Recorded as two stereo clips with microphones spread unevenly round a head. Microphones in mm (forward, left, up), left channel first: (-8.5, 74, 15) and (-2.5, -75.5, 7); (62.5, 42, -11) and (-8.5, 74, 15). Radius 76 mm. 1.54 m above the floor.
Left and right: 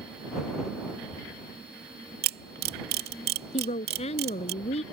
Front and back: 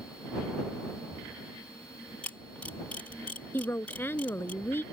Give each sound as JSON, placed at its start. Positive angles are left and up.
{"t": 2.2, "sound": "a camera shutter", "azimuth_deg": -110}
{"t": 3.5, "sound": "a woman speaking", "azimuth_deg": 40}